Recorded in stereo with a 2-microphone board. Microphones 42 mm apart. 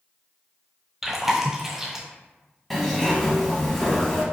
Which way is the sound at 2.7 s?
5° left (ahead or behind).